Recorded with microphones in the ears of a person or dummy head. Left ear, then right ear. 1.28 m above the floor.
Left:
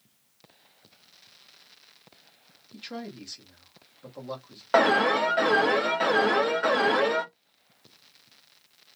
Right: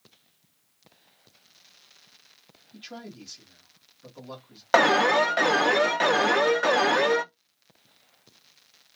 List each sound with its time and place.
2.7 s a man speaking: 15° left (ahead or behind), 1.1 m
4.7 s an alarm: 30° right (ahead or behind), 0.6 m